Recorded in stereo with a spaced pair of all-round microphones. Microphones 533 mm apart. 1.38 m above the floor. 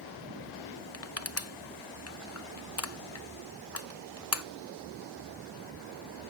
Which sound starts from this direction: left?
Crushing, at 0.9 s.